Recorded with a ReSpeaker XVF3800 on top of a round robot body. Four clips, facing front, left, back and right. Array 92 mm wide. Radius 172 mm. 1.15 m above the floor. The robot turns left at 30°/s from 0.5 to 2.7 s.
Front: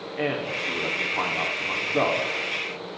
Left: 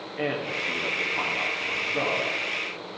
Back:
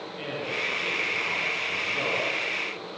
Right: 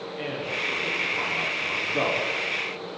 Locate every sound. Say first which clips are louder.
0.2 s a man speaking: left 3 dB, front 5 dB; 35° left, 5 m; by 2.2 s 20° right, 5 m